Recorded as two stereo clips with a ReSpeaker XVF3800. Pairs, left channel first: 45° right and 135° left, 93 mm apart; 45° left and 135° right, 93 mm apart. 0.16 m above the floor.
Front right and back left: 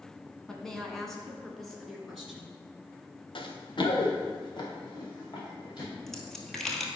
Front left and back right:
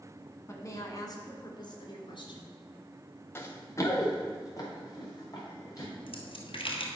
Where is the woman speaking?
35° left, 1.5 m; by 2.6 s 45° left, 2.5 m.